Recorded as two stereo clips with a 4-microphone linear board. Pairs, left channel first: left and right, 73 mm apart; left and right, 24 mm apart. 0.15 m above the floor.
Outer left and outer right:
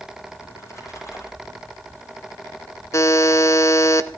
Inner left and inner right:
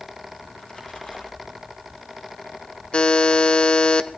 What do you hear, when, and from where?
0.5 s a splash: 45° left (ahead or behind), 5.5 m
2.9 s a buzzer: 40° left (ahead or behind), 1.0 m